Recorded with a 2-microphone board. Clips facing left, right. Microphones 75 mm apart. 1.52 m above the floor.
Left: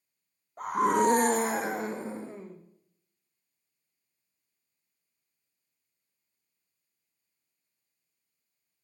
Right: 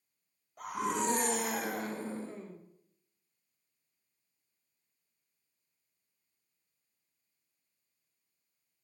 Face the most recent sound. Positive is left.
turn(degrees=15)  # may be behind; listen again after turning